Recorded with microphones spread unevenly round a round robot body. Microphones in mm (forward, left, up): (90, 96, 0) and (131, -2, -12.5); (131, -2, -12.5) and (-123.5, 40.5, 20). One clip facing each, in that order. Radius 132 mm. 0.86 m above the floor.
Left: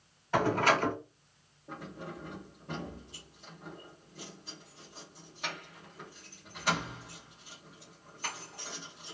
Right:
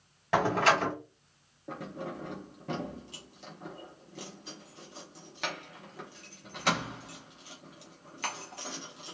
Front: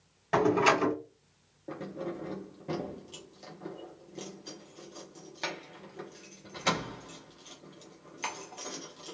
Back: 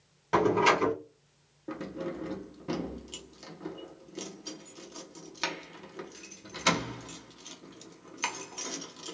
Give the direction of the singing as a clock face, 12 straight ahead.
No singing in this recording.